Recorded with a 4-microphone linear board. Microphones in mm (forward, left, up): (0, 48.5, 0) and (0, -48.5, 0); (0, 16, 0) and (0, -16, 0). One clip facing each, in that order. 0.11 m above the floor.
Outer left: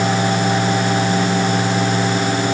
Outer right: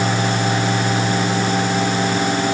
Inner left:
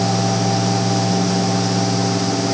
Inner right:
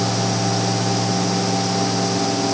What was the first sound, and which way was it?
Only background noise.